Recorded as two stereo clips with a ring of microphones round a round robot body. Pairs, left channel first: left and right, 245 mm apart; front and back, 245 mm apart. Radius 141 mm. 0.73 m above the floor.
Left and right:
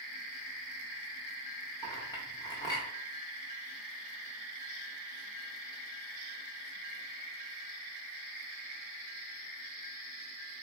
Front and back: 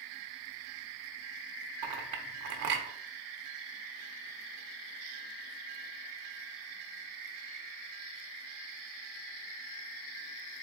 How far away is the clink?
About 0.6 m.